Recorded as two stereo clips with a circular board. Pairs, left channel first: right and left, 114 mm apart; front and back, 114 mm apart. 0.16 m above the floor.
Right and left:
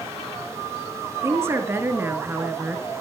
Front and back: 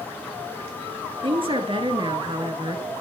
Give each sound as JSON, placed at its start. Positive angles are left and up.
{"t": 1.2, "sound": "a woman speaking", "azimuth_deg": 155, "distance_m": 2.5}